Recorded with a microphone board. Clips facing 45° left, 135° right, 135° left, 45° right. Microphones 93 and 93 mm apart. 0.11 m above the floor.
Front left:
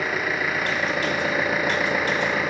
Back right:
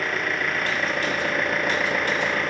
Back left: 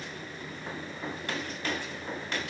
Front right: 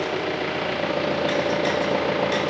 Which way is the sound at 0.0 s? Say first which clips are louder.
Front left 1 dB, front right 17 dB; 40° right.